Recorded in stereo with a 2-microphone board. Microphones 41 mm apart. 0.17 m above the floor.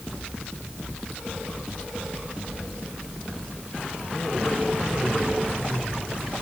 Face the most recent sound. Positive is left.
No sound to turn to.